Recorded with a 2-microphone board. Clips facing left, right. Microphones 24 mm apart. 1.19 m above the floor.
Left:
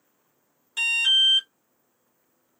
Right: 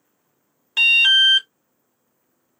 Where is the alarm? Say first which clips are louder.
Right 7 dB; 40° right (ahead or behind), 0.8 m.